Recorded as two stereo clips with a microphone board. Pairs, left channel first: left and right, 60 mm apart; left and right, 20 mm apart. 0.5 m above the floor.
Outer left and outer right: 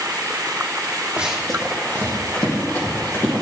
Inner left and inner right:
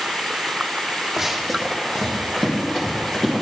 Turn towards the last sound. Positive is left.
turn(degrees=40)  # may be behind; listen again after turning